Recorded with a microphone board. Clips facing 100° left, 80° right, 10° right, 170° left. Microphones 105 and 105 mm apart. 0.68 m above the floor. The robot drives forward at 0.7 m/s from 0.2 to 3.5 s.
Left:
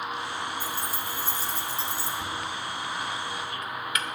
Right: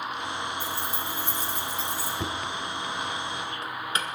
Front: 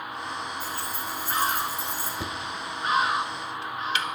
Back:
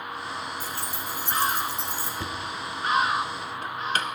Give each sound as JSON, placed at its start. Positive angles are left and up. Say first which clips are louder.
{"t": 0.6, "sound": "keys jangling", "louder": "right 1 dB, front 1 dB", "azimuth_deg": 150, "distance_m": 1.7}
{"t": 2.2, "sound": "knocking", "louder": "right 1 dB, even", "azimuth_deg": -85, "distance_m": 0.8}